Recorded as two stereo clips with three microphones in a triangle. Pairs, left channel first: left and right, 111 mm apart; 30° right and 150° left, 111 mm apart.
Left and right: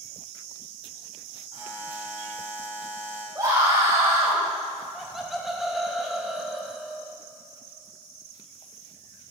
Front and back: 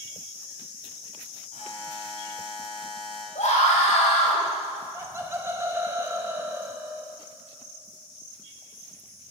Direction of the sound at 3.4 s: 25° right.